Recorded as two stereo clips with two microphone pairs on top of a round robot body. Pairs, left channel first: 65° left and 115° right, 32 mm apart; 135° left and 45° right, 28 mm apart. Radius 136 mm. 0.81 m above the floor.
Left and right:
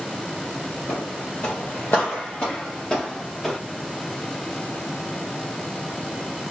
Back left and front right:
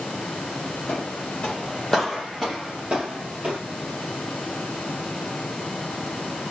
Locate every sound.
0.9 s footsteps: 100° left, 1.3 m; by 3.6 s 15° right, 1.6 m